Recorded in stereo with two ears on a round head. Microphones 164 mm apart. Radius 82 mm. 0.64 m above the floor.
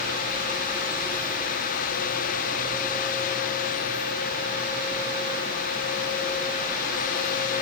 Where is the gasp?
No gasp in this recording.